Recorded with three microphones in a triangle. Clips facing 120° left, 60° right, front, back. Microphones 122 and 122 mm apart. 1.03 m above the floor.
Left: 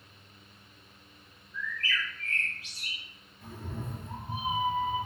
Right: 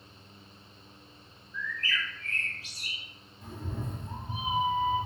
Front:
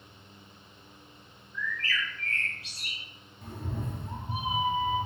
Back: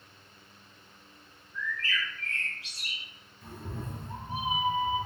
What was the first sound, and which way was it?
A bird, 170° right.